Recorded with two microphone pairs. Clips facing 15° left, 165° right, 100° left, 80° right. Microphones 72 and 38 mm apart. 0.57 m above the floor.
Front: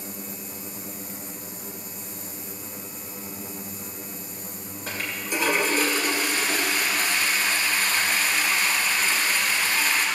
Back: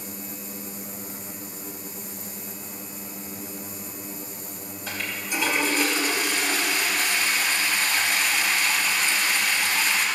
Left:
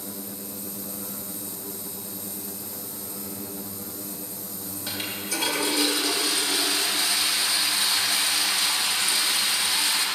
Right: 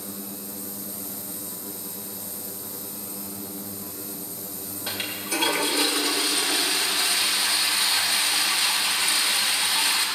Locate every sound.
4.9 s a toilet flushing: 20° right, 2.5 m